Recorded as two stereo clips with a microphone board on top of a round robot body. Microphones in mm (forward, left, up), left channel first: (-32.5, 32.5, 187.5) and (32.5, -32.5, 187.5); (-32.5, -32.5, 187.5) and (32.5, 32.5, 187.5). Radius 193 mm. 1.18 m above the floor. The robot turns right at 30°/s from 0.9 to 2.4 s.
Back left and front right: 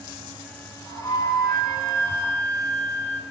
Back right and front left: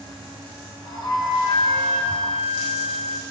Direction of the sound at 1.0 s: 170° left.